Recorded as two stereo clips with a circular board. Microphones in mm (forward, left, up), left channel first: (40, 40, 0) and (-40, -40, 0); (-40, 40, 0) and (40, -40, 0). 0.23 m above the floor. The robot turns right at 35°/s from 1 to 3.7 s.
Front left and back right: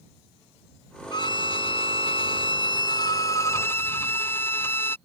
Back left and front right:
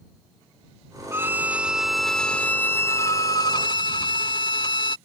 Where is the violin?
15° left; by 5.0 s 105° left.